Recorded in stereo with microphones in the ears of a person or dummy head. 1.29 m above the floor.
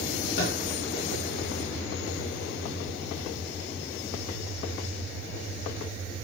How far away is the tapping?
About 1.4 m.